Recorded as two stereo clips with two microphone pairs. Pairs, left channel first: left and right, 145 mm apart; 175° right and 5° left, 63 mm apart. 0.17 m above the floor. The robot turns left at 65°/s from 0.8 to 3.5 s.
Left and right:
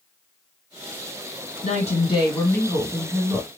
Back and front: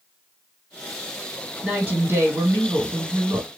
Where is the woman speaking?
70° left, 2.5 m; by 3.5 s 50° right, 2.5 m.